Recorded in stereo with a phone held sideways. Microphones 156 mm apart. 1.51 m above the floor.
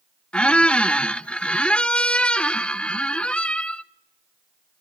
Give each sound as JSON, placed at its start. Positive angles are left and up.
{"t": 0.3, "sound": "a squeak", "side_deg": 5, "distance_m": 0.7}